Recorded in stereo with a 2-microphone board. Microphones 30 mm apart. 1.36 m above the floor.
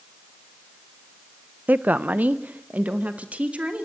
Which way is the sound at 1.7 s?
75° right (ahead or behind).